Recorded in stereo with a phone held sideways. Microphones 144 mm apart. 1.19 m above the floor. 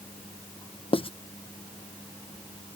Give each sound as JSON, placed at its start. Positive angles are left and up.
{"t": 0.9, "sound": "writing", "side_deg": 40}